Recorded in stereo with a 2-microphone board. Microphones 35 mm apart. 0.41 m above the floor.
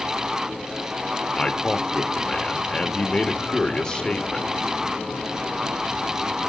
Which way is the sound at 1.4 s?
25° left (ahead or behind).